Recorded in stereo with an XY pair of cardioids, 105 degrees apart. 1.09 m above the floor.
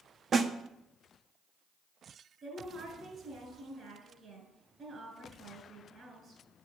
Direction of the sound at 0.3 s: 45° right.